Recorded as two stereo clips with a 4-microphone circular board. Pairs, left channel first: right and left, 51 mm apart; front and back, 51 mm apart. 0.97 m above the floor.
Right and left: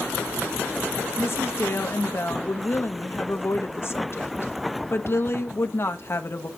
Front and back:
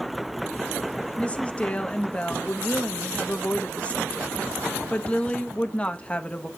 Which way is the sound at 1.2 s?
65° right.